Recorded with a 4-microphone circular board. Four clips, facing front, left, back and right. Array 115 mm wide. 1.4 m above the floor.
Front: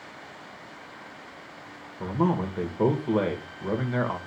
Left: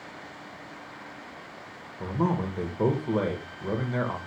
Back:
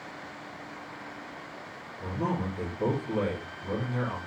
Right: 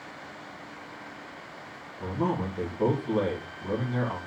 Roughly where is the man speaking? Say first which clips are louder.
Left 1 dB, front 6 dB; ahead left.